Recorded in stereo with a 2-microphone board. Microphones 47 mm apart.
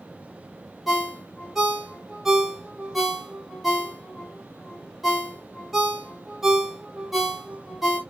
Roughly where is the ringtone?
Centre.